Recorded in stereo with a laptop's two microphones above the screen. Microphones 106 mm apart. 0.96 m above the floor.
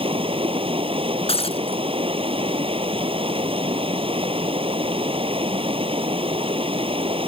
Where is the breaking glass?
70° left (ahead or behind).